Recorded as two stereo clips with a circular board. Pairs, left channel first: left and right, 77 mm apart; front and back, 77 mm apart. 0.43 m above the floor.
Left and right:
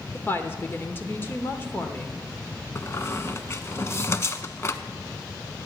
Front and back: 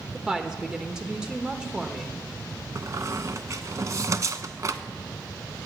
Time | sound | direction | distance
0.1 | a woman speaking | 110° left | 1.0 m
2.8 | a squeak | 140° left | 0.6 m